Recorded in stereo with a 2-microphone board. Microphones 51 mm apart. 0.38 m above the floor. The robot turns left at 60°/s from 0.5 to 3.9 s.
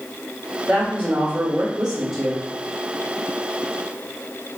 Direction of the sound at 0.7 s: 25° right (ahead or behind).